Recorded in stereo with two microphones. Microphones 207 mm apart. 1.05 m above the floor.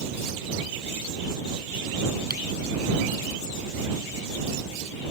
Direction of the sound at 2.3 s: 50° right (ahead or behind).